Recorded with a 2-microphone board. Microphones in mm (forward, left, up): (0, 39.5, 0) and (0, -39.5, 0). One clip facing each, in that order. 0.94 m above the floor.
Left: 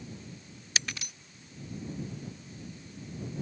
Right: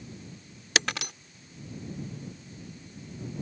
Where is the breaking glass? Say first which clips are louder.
Right 8 dB; 80° right.